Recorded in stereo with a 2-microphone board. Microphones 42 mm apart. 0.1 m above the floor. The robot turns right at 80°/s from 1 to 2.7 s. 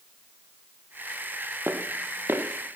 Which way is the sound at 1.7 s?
55° right (ahead or behind).